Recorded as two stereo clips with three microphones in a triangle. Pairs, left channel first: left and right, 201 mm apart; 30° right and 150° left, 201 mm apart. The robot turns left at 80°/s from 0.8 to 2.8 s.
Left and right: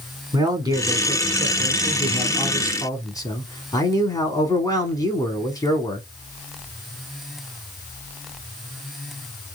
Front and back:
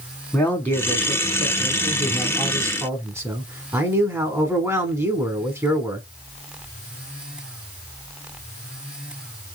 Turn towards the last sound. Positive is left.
turn(degrees=110)